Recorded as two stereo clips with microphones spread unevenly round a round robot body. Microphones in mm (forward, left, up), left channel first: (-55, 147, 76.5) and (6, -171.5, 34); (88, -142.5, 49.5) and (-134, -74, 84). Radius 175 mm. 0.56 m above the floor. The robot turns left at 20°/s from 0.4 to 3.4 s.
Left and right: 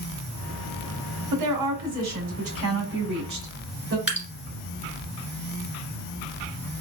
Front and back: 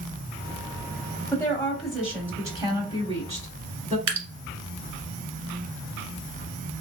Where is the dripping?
170° right, 1.6 m.